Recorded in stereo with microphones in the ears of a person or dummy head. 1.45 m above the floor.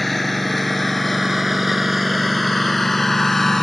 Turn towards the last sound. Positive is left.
turn(degrees=10)  # may be behind; listen again after turning